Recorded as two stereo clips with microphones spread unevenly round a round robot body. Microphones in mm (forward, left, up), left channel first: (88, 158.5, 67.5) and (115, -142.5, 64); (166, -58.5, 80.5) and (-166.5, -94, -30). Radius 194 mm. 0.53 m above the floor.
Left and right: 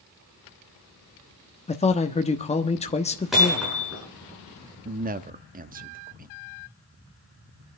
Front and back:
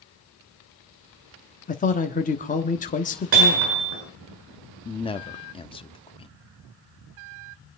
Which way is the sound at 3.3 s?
175° right.